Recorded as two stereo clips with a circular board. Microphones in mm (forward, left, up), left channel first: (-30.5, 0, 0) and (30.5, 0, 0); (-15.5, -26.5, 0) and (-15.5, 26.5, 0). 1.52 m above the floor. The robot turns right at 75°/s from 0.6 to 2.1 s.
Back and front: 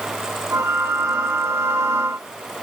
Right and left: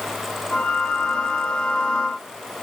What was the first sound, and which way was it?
Only background noise.